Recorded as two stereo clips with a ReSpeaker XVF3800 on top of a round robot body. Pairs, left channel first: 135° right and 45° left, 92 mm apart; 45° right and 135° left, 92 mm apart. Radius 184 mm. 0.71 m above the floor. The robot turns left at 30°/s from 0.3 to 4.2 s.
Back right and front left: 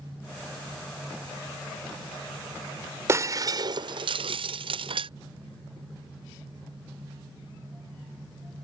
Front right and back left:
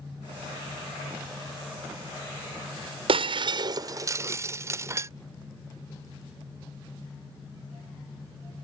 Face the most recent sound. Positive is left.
turn(degrees=75)